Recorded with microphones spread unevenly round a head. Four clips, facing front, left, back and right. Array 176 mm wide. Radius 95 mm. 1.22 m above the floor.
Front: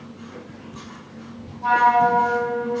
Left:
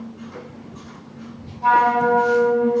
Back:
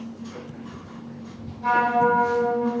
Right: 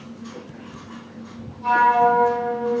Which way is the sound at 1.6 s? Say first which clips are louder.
Even, front 3 dB; 95° left.